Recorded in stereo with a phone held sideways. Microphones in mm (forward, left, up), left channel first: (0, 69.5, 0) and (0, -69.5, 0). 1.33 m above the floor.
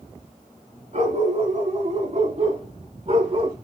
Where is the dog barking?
60° right (ahead or behind), 5 m; by 3.5 s 50° right (ahead or behind), 4.5 m.